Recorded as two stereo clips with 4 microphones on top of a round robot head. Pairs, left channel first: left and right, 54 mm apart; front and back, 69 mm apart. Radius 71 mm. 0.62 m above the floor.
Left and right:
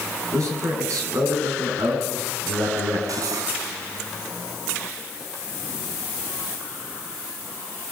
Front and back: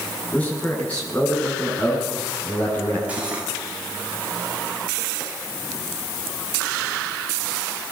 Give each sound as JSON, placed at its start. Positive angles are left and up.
{"t": 0.3, "sound": "a man speaking", "azimuth_deg": -70, "distance_m": 9.5}
{"t": 3.1, "sound": "cutlery clinking", "azimuth_deg": -105, "distance_m": 4.0}